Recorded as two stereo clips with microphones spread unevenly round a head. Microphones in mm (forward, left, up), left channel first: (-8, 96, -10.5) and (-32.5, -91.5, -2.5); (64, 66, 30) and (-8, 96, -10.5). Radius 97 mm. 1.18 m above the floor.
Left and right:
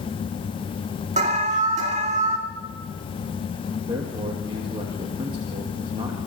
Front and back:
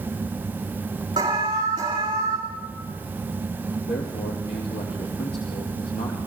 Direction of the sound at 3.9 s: 30° right.